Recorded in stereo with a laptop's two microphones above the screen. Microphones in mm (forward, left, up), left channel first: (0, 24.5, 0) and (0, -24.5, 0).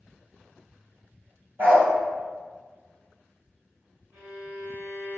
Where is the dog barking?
50° right (ahead or behind), 1.2 m.